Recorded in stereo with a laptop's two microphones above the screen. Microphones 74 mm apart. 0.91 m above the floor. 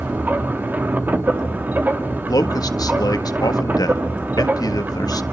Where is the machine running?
25° right (ahead or behind), 1.4 m.